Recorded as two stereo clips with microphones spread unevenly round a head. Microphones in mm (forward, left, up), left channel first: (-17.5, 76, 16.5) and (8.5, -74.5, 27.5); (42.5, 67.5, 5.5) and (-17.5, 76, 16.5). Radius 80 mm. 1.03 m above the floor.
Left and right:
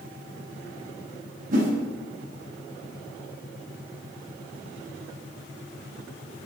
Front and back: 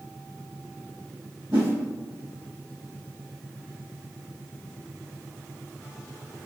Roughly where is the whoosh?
Behind right.